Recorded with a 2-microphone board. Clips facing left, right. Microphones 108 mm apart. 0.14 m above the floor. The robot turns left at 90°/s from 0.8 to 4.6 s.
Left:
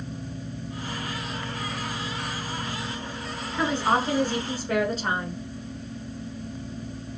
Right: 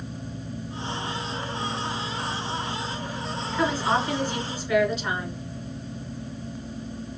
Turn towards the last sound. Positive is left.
turn(degrees=65)